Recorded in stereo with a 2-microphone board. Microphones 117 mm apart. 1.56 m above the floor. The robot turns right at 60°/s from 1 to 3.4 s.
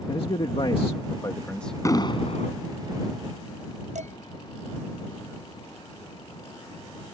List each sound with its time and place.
0.1 s a man speaking: 130° left; by 1.8 s 175° left
1.9 s an explosion: 25° left; by 2.6 s 70° left
4.0 s dishes clattering: 75° right (ahead or behind)